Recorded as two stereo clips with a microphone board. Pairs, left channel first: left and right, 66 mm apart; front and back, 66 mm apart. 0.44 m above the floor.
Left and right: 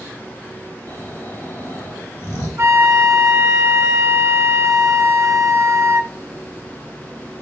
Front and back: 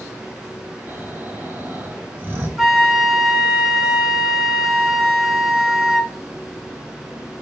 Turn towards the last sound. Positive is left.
turn(degrees=-100)